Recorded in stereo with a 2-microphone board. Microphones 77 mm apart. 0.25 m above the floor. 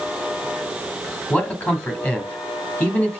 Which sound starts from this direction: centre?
A man speaking, at 1.3 s.